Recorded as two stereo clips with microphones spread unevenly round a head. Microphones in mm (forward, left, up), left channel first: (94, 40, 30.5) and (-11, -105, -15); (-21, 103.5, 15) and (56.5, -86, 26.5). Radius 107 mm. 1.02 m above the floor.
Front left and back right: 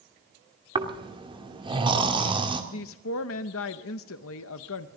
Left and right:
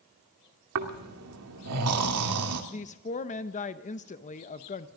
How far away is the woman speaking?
About 0.7 m.